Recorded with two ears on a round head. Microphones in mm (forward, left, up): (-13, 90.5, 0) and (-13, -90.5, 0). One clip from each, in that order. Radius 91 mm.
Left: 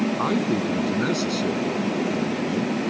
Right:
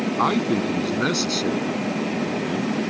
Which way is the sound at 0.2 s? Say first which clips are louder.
Right 6 dB; 35° right (ahead or behind).